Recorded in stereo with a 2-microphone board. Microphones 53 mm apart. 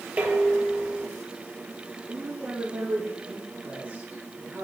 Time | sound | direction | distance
0.2 | dishes clattering | 25° right (ahead or behind) | 2.5 m
2.1 | a woman speaking | 35° right (ahead or behind) | 5.5 m